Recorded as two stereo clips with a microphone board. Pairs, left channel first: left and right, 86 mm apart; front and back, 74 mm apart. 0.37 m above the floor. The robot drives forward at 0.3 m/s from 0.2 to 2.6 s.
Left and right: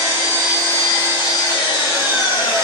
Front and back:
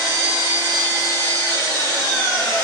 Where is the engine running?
45° left, 2.0 m; by 2.6 s 70° left, 1.6 m.